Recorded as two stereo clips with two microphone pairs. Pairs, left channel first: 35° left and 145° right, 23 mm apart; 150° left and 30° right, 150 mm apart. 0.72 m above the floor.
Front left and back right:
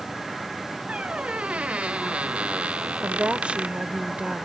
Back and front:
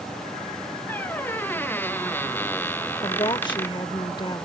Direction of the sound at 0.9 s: 130° right.